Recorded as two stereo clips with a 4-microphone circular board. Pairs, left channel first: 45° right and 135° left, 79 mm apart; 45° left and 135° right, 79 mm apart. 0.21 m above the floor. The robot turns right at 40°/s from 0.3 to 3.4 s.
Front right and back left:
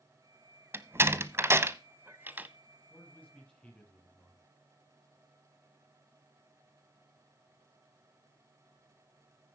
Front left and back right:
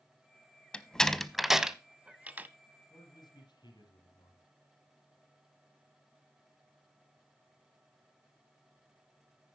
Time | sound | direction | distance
0.7 | a door slam | 110° left | 0.7 m
2.9 | a man speaking | 10° left | 5 m